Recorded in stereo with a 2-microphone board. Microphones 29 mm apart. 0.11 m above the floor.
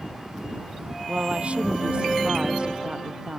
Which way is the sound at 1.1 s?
55° right (ahead or behind).